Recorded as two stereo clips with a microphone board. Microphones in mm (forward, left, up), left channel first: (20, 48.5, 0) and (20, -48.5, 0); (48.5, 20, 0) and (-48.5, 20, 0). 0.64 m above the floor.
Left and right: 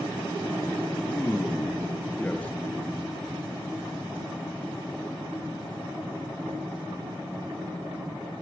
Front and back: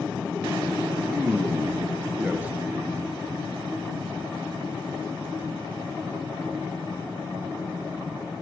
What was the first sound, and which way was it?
A man speaking, 140° left.